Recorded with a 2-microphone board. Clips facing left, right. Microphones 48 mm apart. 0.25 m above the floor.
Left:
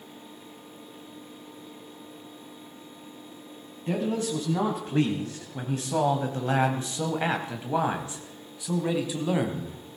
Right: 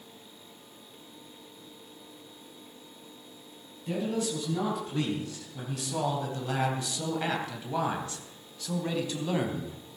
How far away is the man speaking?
About 2.5 m.